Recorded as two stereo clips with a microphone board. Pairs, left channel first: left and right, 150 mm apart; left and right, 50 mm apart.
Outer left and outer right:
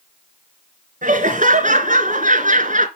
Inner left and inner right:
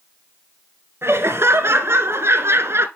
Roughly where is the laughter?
Right.